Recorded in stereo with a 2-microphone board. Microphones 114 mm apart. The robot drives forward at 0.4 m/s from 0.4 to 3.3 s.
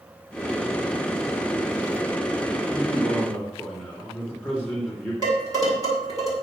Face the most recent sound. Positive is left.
turn(degrees=-35)  # may be behind; listen again after turning